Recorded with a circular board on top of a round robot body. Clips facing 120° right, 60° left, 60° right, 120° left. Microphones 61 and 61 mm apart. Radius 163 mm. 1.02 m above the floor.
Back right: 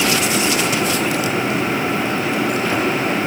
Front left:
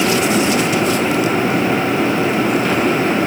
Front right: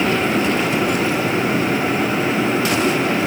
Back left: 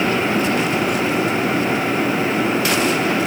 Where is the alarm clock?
No alarm clock in this recording.